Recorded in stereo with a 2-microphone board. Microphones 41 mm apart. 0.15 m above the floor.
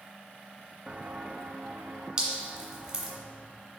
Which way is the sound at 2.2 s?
25° right (ahead or behind).